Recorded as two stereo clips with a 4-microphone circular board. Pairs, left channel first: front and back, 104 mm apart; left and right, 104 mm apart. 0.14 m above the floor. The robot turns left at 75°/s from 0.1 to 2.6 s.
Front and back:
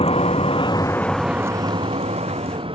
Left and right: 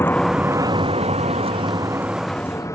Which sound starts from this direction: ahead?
A vehicle, at 0.0 s.